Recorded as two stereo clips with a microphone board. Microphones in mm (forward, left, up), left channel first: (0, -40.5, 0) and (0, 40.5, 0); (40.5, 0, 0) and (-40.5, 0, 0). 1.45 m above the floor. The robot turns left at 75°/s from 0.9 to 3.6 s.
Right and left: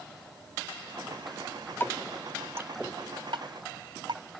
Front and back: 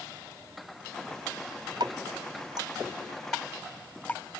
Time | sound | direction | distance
1.8 | dripping | 155° right | ?